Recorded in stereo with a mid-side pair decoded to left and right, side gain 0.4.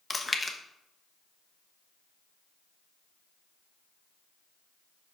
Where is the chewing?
20° left, 0.9 m.